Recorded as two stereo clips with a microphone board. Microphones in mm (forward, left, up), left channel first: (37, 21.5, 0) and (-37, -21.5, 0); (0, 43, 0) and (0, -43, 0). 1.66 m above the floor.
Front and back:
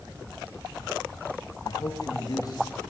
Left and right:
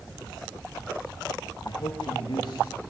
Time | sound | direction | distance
1.6 | a man speaking | 70° left | 3 m